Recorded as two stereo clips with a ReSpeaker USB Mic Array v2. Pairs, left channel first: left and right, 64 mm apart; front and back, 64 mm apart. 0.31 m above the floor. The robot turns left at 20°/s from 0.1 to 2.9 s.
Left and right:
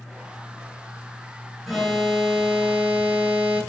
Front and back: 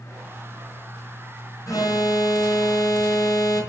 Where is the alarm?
5° left, 6 m; by 3.6 s 20° right, 6 m.